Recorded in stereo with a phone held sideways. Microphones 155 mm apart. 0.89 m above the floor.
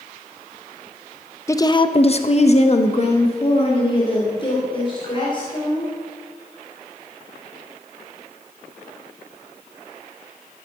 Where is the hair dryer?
I don't hear a hair dryer.